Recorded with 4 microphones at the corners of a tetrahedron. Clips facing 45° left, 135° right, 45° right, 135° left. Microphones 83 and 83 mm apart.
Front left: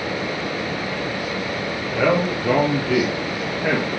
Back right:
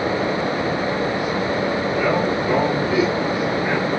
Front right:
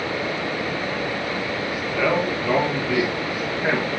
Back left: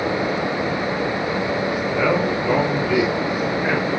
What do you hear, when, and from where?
1.9 s a man speaking: 60° left, 3.5 m; by 3.9 s 35° left, 4.5 m